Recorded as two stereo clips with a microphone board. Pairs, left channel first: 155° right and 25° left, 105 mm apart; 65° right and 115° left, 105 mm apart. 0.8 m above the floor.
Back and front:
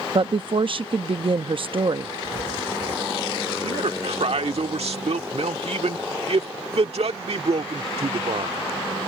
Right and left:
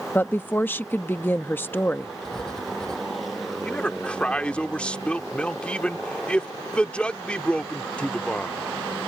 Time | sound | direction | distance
0.1 | a woman speaking | straight ahead | ?
2.2 | writing | 15° left | ?
3.6 | a man speaking | 10° left | ?